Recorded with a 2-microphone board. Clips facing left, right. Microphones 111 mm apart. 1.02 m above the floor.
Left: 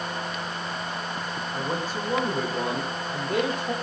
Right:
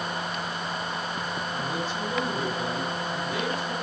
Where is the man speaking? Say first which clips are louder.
Left 4 dB; 40° left (ahead or behind), 5 m; by 3.7 s 60° left (ahead or behind), 4 m.